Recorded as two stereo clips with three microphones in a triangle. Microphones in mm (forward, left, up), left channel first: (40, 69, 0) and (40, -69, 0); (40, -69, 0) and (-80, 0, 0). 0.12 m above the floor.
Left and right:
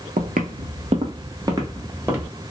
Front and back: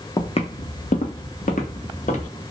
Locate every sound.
0.2 s footsteps: 90° right, 0.5 m; by 2.3 s 15° right, 1.3 m